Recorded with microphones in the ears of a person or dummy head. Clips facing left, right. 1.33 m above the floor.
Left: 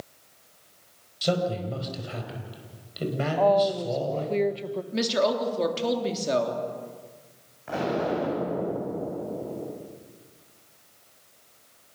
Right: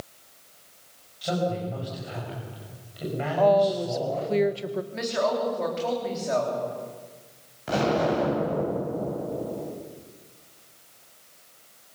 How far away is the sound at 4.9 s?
About 3.5 m.